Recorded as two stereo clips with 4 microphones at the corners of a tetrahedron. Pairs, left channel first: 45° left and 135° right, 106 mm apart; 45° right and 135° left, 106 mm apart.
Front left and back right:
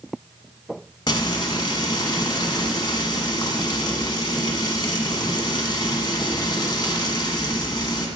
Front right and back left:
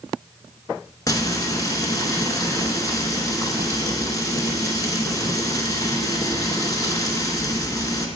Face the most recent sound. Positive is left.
turn(degrees=5)